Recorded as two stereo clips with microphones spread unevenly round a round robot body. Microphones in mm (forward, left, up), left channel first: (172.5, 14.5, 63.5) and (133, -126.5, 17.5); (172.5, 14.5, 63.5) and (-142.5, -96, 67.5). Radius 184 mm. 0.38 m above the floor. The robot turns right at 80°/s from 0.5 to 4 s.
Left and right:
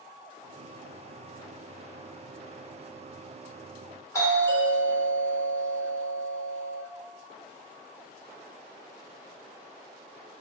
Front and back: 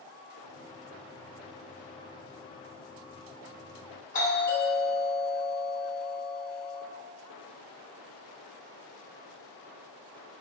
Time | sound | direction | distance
4.1 | a doorbell | 10° right | 1.5 m